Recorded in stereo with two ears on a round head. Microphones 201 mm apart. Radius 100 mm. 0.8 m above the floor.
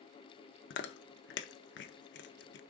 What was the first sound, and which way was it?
Chewing, 50° left (ahead or behind).